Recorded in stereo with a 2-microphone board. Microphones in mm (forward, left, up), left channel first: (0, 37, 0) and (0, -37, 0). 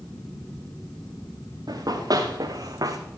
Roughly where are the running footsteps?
Right.